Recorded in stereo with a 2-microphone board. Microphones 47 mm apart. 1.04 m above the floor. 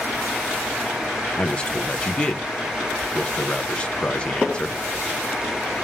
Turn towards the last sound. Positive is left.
turn(degrees=25)  # may be behind; listen again after turning